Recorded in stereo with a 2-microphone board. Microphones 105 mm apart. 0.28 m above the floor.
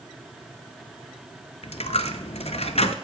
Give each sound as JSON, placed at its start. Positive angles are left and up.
{"t": 1.6, "sound": "a dropped coin", "side_deg": 80, "distance_m": 0.7}